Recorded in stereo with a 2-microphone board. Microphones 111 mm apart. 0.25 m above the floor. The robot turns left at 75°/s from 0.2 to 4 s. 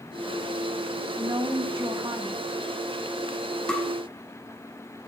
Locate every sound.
1.2 s a woman speaking: 55° right, 1.8 m; by 2.5 s 150° right, 1.8 m
3.7 s tapping: 5° left (ahead or behind), 1.4 m; by 3.9 s 20° left (ahead or behind), 1.4 m